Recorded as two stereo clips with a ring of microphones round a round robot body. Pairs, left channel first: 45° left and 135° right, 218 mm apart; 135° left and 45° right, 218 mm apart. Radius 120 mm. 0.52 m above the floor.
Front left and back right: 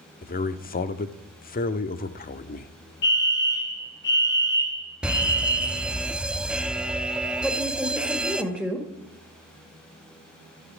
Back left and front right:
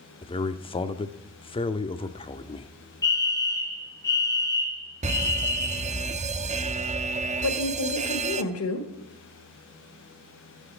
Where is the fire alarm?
65° left, 3 m.